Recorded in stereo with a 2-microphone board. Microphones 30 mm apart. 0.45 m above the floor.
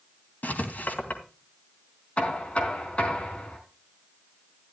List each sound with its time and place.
0.4 s writing: 70° left (ahead or behind), 3 m
2.2 s knocking: 40° left (ahead or behind), 3.5 m